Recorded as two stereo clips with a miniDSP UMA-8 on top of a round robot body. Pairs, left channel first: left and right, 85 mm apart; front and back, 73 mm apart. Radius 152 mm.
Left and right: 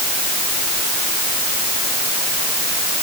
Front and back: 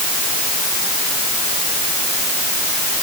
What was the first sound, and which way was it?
Only background noise.